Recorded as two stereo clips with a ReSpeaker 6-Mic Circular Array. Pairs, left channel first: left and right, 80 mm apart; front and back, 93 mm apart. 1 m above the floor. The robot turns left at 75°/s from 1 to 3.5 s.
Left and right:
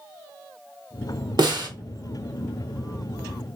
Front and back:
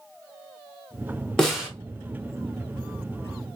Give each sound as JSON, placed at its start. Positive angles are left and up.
{"t": 1.4, "sound": "a snare drum", "azimuth_deg": -85, "distance_m": 1.0}